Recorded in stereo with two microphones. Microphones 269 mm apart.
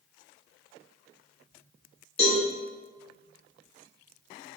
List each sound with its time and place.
2.2 s a cowbell: 20° left (ahead or behind), 1.0 m